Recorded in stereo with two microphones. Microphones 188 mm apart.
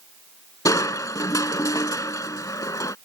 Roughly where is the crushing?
Centre.